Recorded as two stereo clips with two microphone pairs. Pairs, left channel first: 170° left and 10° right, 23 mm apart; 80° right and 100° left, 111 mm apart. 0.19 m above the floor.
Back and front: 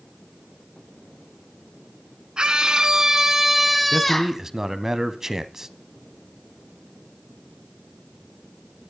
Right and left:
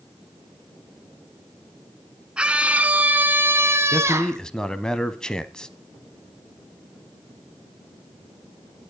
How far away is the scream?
About 1.7 m.